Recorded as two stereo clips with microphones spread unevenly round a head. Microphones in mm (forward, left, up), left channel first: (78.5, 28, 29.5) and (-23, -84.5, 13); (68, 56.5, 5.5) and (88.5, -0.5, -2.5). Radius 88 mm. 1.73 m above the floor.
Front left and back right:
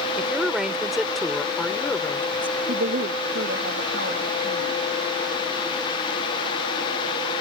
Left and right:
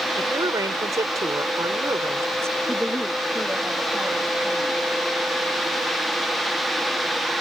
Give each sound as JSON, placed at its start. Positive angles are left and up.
{"t": 0.2, "sound": "a woman speaking", "azimuth_deg": -45}
{"t": 2.7, "sound": "a woman speaking", "azimuth_deg": -150}